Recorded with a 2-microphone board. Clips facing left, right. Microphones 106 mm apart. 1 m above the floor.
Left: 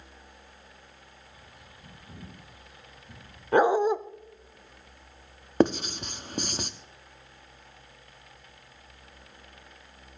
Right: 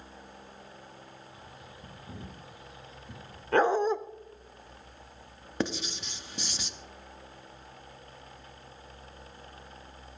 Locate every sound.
1.3 s a bird: 25° right (ahead or behind), 3 m
3.5 s a dog barking: 15° left (ahead or behind), 0.6 m
5.6 s writing: 50° left (ahead or behind), 0.7 m